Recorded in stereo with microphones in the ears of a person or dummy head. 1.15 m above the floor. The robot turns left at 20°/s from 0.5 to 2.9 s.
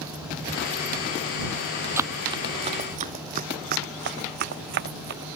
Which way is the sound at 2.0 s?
15° right (ahead or behind).